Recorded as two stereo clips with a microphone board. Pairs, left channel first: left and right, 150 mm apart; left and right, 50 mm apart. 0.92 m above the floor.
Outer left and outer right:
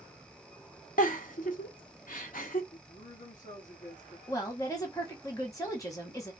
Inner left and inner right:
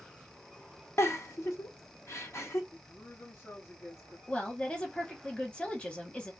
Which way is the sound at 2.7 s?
60° left (ahead or behind).